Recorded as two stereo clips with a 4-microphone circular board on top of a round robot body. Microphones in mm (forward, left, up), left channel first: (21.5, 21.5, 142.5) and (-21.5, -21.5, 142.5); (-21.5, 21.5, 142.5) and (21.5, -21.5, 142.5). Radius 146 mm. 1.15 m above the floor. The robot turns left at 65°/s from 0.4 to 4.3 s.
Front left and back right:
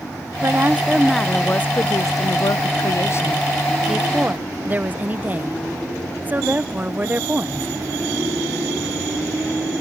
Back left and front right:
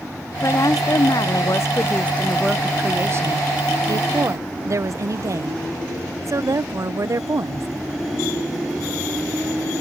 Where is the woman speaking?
175° left; by 7.7 s 75° right.